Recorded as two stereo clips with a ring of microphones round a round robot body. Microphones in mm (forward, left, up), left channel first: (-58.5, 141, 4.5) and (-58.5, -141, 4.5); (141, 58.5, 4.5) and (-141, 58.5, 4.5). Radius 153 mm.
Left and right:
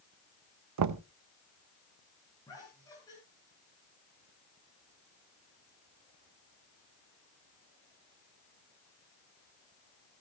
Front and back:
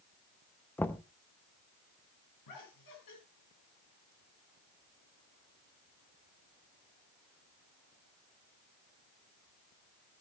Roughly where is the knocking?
Right.